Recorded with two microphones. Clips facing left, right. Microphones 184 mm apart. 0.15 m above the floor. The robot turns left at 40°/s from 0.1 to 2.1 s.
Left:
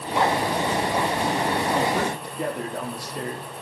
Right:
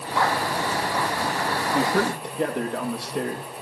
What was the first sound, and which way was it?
A man speaking, 60° right (ahead or behind).